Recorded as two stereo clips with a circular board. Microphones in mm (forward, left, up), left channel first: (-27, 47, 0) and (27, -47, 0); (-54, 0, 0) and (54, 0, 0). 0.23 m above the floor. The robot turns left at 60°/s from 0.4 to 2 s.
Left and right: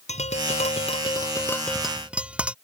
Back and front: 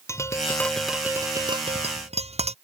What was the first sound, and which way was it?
Tapping, 115° left.